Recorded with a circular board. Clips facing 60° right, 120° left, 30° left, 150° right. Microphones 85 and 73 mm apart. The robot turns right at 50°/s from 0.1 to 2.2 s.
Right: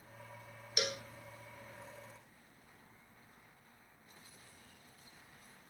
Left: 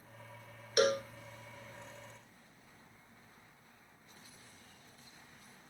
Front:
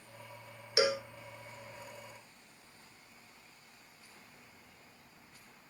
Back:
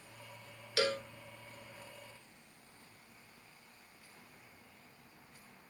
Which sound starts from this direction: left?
A cowbell, at 0.8 s.